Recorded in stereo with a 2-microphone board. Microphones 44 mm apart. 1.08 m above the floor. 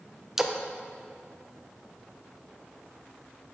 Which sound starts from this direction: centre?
A splash, at 0.4 s.